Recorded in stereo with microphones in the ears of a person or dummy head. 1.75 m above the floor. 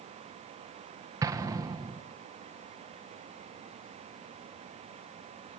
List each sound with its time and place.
1.2 s an explosion: 15° right (ahead or behind), 2 m